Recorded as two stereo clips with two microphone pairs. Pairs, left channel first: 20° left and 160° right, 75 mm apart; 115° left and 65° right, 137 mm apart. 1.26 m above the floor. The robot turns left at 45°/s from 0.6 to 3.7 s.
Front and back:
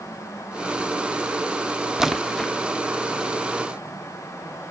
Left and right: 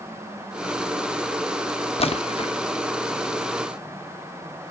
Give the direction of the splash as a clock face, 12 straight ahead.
8 o'clock.